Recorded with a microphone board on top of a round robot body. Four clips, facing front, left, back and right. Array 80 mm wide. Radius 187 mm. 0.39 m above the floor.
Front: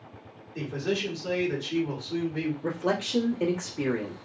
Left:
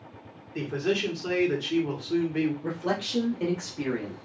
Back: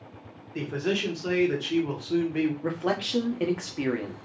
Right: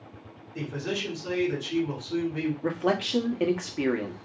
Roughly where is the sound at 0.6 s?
Behind left.